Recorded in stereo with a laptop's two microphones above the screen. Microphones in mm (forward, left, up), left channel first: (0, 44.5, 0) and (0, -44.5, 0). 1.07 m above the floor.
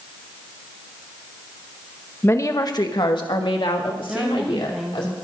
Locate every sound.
2.2 s a woman speaking: 25° left (ahead or behind), 1.0 m; by 5.1 s 80° left, 3.5 m
4.1 s a woman speaking: 10° right (ahead or behind), 0.7 m